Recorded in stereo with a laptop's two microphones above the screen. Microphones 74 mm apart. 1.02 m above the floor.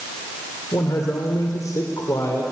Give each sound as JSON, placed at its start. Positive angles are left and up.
{"t": 0.7, "sound": "a man speaking", "side_deg": 50, "distance_m": 2.5}